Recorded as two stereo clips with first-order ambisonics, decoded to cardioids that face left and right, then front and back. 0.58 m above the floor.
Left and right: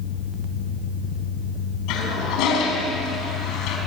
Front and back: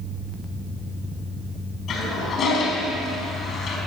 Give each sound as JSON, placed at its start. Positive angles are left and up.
{"t": 1.9, "sound": "a toilet flushing", "azimuth_deg": 60, "distance_m": 4.5}